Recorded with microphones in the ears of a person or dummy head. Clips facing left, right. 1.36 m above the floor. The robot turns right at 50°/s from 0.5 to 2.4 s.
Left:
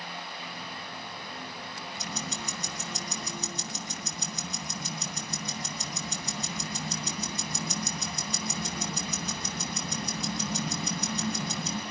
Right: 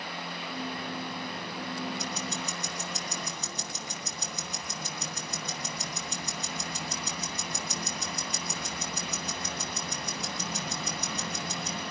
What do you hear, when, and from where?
2.0 s ticking: 80° left, 5.5 m; by 11.8 s 60° left (ahead or behind), 5.5 m